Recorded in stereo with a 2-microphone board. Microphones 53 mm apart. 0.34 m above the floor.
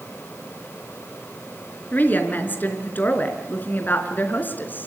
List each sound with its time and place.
1.9 s a woman speaking: 35° left (ahead or behind), 4 m